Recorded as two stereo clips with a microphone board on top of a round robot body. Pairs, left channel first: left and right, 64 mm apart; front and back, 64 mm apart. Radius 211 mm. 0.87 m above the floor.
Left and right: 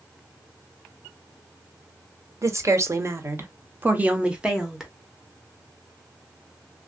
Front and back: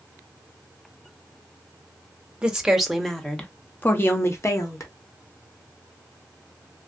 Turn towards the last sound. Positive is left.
turn(degrees=-10)